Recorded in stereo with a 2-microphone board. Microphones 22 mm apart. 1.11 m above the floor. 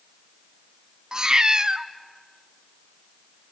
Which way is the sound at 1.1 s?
35° right (ahead or behind).